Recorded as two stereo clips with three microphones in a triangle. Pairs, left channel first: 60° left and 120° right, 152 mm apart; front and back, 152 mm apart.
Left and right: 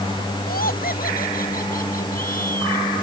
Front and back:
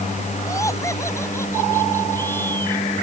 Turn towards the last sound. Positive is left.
turn(degrees=75)